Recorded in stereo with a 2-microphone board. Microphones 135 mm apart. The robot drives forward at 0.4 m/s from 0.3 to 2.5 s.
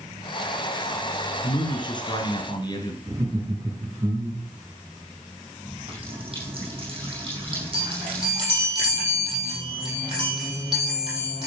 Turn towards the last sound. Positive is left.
turn(degrees=-35)  # may be behind; listen again after turning